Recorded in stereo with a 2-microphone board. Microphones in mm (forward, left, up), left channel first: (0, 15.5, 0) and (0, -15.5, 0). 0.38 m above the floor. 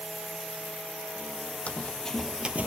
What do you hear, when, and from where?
1.7 s running footsteps: 40° left (ahead or behind), 1.1 m; by 2.7 s 55° right (ahead or behind), 0.7 m